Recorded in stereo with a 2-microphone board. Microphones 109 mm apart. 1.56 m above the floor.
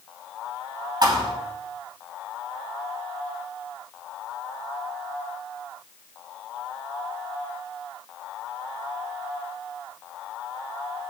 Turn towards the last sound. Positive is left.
turn(degrees=-40)  # may be behind; listen again after turning